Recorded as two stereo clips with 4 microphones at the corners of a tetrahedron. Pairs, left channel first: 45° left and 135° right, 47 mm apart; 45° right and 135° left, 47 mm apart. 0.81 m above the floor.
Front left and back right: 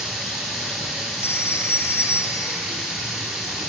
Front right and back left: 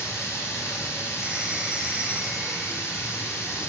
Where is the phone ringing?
65° left, 3 m.